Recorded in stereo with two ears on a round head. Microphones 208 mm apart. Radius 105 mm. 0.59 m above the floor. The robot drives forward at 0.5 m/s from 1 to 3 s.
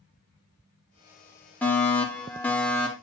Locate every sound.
1.6 s a fire alarm: 5° left (ahead or behind), 2.5 m